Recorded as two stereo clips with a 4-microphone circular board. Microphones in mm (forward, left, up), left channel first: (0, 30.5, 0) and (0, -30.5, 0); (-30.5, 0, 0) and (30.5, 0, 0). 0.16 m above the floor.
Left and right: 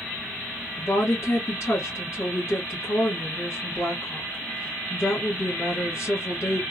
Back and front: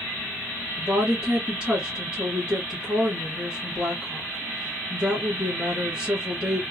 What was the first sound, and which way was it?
A woman speaking, 65° left.